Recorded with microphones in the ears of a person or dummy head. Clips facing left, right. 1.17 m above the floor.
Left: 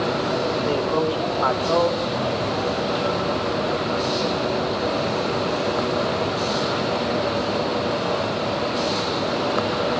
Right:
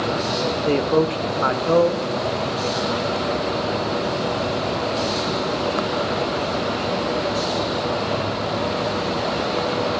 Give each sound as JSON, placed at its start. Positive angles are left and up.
{"t": 0.7, "sound": "a man speaking", "side_deg": -25, "distance_m": 0.7}